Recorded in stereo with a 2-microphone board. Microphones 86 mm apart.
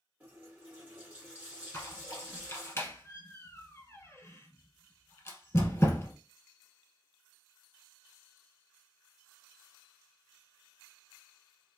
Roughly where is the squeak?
Left.